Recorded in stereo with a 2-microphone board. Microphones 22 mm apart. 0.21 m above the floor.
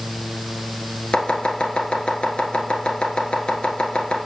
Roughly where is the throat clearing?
I don't hear throat clearing.